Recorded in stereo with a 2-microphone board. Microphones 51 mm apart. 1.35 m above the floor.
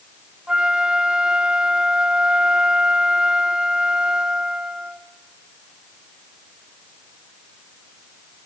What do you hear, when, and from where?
0.5 s a flute: 15° right (ahead or behind), 1.0 m